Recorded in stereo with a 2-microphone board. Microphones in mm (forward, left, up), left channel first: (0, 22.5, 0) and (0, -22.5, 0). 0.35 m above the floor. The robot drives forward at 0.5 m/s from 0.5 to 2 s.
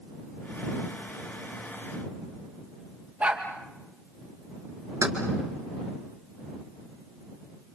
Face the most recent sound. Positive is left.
turn(degrees=-75)  # may be behind; listen again after turning